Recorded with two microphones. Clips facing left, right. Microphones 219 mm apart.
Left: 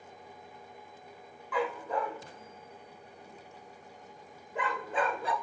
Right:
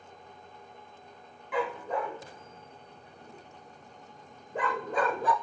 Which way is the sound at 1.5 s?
25° right (ahead or behind).